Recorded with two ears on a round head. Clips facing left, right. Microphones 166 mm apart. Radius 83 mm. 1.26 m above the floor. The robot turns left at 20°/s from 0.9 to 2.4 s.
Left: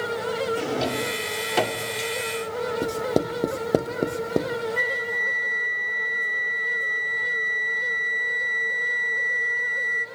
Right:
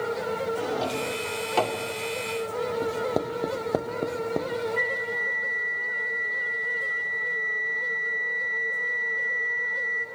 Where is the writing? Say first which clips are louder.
Left 3 dB; 30° left (ahead or behind), 0.8 m.